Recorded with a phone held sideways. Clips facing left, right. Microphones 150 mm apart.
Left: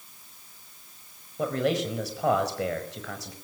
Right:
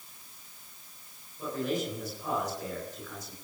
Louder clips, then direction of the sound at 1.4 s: Left 6 dB; 85° left.